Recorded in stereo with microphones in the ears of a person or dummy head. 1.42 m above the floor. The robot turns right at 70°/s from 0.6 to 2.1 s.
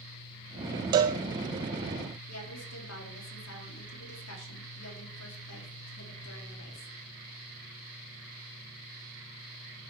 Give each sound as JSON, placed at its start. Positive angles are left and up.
{"t": 0.9, "sound": "a cowbell", "side_deg": -25, "distance_m": 0.6}
{"t": 2.3, "sound": "a woman speaking", "side_deg": 85, "distance_m": 4.0}